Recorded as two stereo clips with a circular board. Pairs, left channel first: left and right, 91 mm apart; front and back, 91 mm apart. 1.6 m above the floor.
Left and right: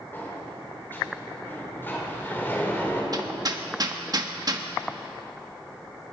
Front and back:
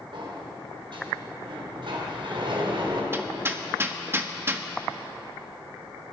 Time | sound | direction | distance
0.1 | a sliding door | 155° left | 4 m
3.1 | hammering | 120° right | 1.5 m